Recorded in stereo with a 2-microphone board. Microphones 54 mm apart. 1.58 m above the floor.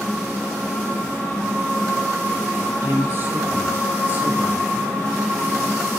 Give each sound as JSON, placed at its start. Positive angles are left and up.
{"t": 2.8, "sound": "a man speaking", "side_deg": -45, "distance_m": 7.5}